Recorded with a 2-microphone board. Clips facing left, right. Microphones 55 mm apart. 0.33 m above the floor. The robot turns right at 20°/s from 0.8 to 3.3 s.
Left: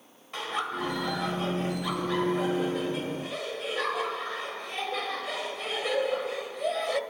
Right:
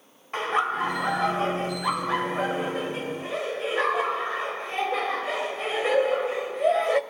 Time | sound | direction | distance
0.3 | laughter | 100° right | 1.1 m